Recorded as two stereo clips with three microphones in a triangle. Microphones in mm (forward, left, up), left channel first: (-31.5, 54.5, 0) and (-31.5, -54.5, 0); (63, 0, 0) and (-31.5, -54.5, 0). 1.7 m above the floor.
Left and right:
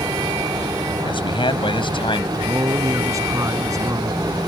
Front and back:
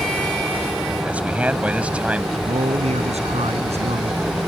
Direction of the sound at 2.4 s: 150° right.